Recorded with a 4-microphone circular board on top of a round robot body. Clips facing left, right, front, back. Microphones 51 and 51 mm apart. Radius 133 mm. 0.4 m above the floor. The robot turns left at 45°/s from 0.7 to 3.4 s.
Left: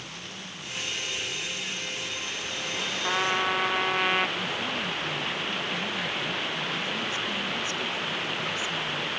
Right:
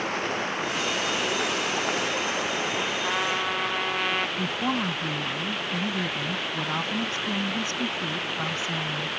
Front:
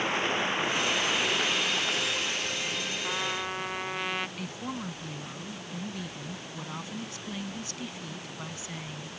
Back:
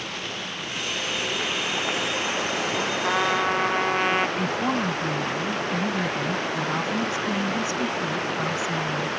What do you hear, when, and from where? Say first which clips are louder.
0.0 s running water: right 13 dB, front 4 dB; 60° right; by 9.2 s straight behind
3.0 s a trumpet: left 4 dB, back 12 dB; straight behind; by 4.3 s 165° left
4.4 s a woman speaking: right 4 dB, back 12 dB; 130° right